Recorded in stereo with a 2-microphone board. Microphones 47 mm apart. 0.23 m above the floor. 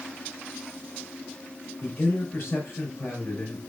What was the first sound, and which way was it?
A man speaking, 60° left (ahead or behind).